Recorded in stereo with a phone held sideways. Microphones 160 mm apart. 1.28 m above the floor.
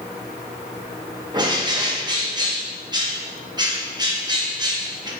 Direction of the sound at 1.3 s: 25° right (ahead or behind).